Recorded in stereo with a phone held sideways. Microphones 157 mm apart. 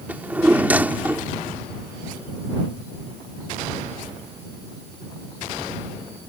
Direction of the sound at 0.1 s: 10° right (ahead or behind).